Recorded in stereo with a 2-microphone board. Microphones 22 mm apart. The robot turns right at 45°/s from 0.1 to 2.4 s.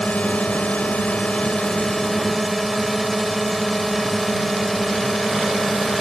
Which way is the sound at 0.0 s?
70° left.